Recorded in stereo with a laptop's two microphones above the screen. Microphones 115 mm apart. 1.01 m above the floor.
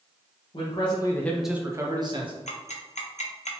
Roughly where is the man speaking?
Left.